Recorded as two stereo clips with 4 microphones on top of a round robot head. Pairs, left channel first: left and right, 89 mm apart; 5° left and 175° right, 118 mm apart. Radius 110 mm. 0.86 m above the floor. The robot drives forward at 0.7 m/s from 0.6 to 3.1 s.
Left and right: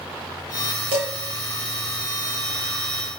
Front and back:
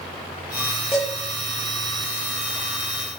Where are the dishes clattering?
90° right, 2.5 m; by 1.1 s 95° right, 2.5 m.